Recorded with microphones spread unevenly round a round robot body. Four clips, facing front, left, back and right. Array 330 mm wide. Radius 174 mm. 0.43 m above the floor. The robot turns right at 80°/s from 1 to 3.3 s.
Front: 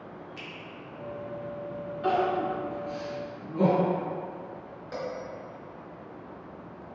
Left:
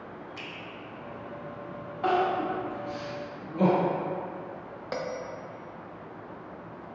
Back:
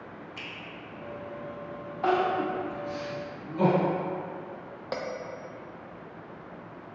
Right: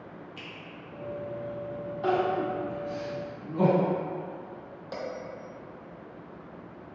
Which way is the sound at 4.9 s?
140° left.